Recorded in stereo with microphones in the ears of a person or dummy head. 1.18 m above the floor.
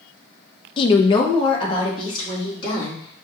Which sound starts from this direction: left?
A woman speaking, at 0.8 s.